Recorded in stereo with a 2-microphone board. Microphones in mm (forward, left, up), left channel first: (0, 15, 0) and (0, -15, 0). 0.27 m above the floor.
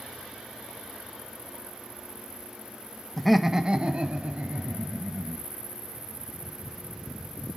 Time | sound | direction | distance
3.2 | laughter | 10° left (ahead or behind) | 1.0 m